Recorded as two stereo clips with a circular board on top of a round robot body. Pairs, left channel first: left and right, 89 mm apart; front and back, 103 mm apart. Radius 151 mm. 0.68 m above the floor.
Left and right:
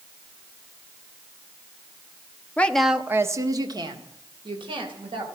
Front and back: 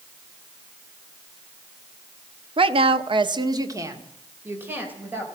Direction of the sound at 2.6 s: 160° left.